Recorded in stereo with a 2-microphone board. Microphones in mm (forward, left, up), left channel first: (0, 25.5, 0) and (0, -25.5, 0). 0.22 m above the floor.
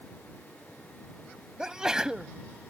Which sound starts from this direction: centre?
A sneeze, at 1.6 s.